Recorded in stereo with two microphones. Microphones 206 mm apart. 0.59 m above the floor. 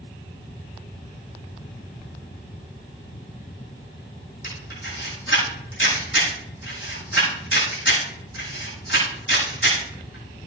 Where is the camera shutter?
70° left (ahead or behind), 7.5 m.